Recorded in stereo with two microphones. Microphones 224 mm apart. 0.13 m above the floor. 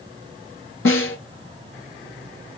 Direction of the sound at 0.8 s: 65° left (ahead or behind).